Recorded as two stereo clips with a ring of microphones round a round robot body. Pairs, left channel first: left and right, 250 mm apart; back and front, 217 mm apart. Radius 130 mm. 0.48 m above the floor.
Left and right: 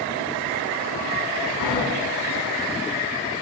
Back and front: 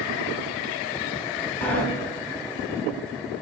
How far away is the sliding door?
About 2 m.